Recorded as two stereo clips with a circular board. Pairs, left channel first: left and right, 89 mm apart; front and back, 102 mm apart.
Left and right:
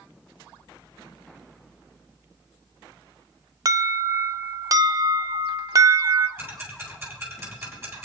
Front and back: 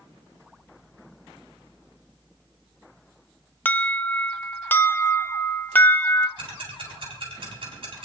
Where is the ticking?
150° right, 3.5 m.